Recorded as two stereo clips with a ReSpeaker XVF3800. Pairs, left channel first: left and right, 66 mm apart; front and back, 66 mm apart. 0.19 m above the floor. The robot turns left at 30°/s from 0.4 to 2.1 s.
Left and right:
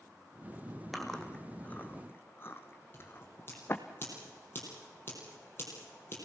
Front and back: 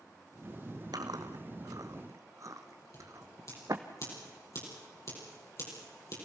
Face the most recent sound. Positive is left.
turn(degrees=35)